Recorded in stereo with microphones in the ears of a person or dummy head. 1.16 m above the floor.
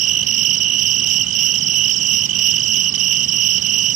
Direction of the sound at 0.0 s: 40° right (ahead or behind).